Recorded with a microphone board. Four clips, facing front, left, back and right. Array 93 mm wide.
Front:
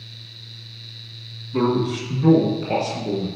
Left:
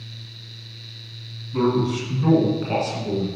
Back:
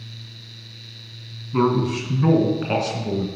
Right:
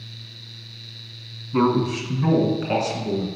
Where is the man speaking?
130° right, 1.3 m; by 3.3 s 175° right, 2.0 m.